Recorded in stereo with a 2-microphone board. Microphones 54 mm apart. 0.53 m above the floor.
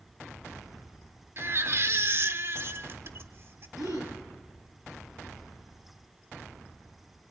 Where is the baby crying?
50° right (ahead or behind), 1.2 m.